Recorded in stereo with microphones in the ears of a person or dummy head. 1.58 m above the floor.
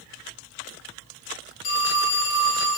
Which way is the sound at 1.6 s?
50° left (ahead or behind).